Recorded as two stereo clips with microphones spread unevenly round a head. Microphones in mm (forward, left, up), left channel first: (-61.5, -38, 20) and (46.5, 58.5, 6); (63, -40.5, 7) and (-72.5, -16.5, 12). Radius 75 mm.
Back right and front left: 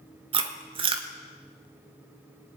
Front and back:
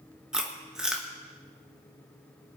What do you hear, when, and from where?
0.3 s chewing: 85° left, 1.5 m